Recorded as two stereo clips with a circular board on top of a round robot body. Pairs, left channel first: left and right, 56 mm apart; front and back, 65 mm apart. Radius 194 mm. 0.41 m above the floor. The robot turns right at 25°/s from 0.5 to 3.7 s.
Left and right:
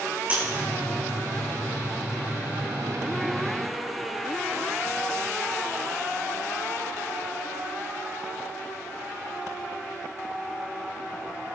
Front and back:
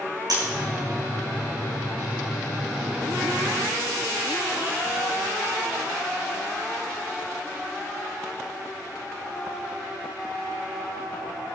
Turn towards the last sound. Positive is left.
turn(degrees=-80)